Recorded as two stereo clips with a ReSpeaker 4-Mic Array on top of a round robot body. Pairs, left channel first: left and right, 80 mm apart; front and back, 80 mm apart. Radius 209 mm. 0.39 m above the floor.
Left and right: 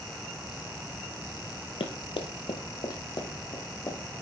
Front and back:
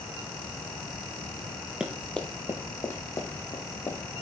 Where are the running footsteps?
100° left, 0.8 m; by 4.0 s 45° left, 2.5 m.